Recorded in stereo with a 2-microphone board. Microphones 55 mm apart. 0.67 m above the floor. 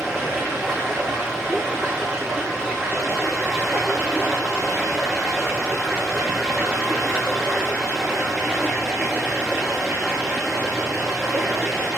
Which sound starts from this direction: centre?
Running water, at 0.0 s.